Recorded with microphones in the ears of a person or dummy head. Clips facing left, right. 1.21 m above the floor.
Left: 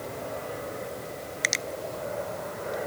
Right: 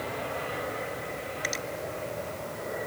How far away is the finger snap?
About 0.6 m.